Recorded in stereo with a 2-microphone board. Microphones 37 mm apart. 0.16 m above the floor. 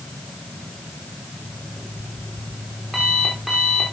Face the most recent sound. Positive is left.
turn(degrees=-5)  # may be behind; listen again after turning